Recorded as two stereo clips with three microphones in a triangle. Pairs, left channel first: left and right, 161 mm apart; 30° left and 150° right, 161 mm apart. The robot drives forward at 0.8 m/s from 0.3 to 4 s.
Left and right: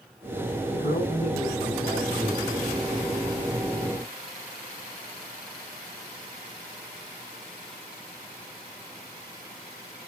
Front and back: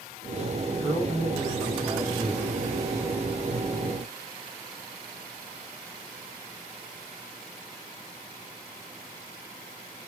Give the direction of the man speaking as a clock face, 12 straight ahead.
8 o'clock.